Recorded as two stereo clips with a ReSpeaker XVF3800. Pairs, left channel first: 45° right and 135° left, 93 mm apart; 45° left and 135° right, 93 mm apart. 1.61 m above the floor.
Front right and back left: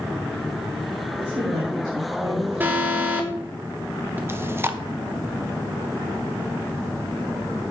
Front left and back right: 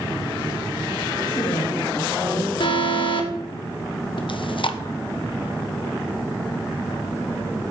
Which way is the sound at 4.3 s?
70° left.